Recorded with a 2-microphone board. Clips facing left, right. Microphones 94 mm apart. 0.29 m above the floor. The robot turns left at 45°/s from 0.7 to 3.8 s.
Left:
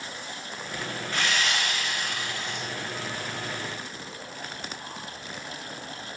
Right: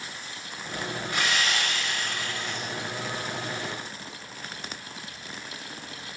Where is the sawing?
160° right, 0.6 m; by 2.7 s 130° left, 0.6 m.